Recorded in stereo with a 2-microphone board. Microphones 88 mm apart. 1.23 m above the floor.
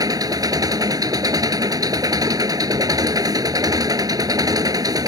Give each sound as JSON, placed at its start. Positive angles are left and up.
{"t": 0.0, "sound": "an engine running", "side_deg": -45}